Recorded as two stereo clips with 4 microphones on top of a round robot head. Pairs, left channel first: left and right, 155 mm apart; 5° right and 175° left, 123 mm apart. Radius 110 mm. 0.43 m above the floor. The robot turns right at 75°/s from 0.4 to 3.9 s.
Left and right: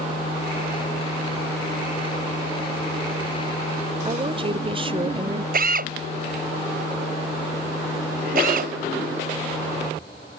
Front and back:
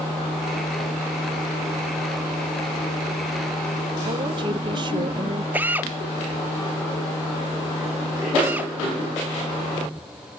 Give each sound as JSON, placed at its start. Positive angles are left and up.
{"t": 4.0, "sound": "a woman speaking", "azimuth_deg": -140}
{"t": 5.5, "sound": "a drill", "azimuth_deg": -110}